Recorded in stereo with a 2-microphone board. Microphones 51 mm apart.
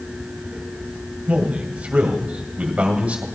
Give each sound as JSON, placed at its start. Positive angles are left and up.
{"t": 1.3, "sound": "a man speaking", "side_deg": -25, "distance_m": 2.5}